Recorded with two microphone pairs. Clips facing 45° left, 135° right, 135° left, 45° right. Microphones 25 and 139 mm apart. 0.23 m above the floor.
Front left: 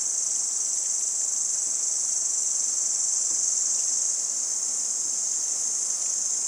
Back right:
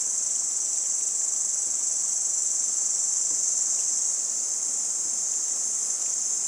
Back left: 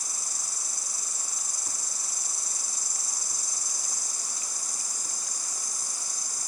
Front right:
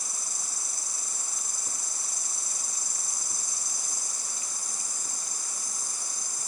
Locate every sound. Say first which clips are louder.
0.0 s an insect: front left 1 dB, even; 10° right, 4.5 m